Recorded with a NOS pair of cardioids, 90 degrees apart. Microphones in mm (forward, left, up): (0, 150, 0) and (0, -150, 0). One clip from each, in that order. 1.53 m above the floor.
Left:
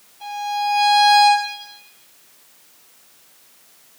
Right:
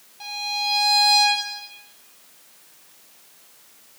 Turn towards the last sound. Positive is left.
turn(degrees=-50)